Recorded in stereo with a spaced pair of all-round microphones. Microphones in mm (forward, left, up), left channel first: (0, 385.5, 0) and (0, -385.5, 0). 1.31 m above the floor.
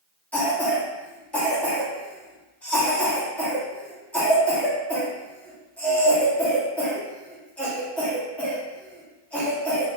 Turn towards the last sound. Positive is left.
turn(degrees=0)  # may be behind; listen again after turning